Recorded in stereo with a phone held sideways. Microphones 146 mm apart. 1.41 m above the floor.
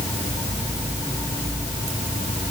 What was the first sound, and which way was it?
Only background noise.